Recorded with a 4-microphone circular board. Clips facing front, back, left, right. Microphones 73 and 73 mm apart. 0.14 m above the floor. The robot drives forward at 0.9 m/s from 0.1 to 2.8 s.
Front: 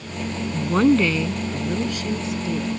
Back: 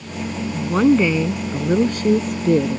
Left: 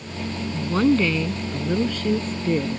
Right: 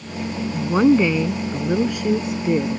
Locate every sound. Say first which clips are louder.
0.5 s a woman speaking: back 2 dB, right 4 dB; 65° right; by 2.8 s 170° right